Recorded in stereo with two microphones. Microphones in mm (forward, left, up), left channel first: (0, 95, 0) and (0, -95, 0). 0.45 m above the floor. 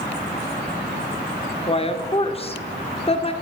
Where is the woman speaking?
30° left (ahead or behind), 0.9 m.